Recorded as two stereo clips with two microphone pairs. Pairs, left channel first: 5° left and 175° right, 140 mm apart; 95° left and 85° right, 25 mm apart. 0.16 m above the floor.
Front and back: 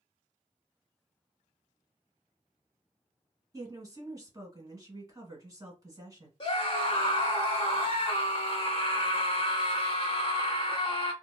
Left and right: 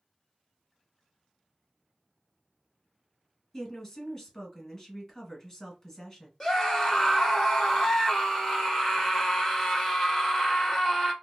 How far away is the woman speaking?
About 1.4 m.